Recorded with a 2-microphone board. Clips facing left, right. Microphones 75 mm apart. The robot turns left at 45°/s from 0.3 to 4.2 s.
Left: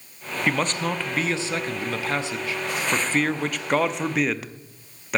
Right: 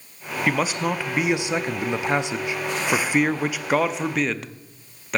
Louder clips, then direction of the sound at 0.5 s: Right 1 dB; 5° right (ahead or behind).